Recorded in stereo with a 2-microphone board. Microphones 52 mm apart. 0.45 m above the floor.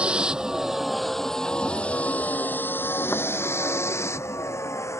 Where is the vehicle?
25° right (ahead or behind); by 5.0 s 65° left (ahead or behind).